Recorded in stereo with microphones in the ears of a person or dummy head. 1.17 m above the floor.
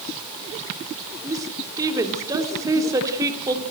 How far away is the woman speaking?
About 3 m.